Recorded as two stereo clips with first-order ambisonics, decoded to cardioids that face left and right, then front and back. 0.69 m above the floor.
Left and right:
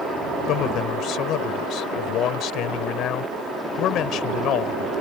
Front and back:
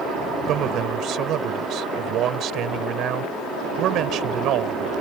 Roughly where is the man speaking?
Behind left.